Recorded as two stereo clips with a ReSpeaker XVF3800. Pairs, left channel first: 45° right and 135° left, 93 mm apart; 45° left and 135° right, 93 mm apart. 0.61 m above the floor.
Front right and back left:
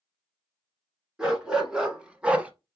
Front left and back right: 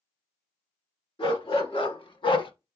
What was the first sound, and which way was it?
A dog barking, 55° left.